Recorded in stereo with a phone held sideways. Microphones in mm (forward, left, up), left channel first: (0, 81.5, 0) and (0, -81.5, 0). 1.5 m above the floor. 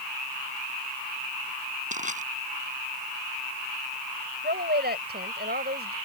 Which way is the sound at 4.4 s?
80° right.